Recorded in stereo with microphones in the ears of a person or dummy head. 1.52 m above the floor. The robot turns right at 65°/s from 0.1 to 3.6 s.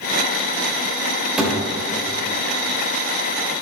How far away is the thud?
About 3 m.